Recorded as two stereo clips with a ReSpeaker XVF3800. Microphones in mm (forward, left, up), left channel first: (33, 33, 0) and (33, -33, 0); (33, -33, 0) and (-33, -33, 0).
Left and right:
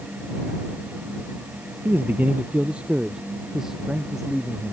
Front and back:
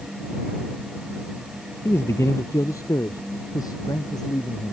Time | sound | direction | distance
1.9 | a man speaking | 40° right | ?